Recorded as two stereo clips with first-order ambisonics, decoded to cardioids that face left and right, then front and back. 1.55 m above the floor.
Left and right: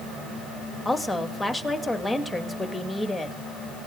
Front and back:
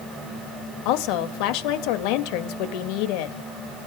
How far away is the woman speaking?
About 2.5 m.